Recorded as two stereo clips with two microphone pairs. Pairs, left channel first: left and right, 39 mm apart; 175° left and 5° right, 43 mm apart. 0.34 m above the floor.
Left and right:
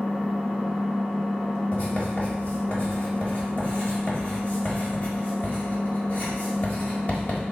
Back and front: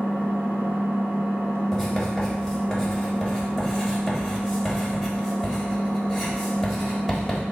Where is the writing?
85° left, 1.2 m.